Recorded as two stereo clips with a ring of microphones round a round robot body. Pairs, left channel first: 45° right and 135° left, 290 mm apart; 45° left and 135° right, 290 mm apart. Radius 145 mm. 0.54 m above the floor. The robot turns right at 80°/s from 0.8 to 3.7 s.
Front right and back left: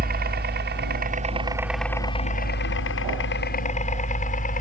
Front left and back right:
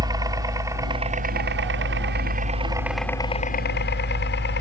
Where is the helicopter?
160° left; by 4.6 s 5° left.